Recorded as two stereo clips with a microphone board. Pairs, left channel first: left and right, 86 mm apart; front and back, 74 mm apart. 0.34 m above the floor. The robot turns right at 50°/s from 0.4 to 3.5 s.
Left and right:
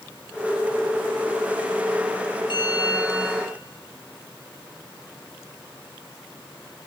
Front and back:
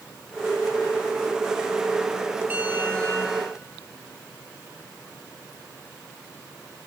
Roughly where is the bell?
Behind left.